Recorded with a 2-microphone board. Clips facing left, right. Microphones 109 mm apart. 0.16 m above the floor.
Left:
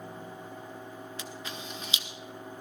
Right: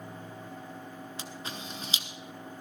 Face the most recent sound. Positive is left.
turn(degrees=-35)  # may be behind; listen again after turning